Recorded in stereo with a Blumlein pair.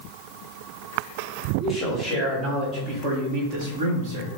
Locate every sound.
1.6 s a man speaking: 10° left, 1.4 m; by 4.3 s 50° right, 1.5 m